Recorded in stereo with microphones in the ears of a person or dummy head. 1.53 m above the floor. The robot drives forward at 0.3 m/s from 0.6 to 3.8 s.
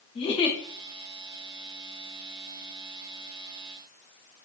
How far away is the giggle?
About 0.7 m.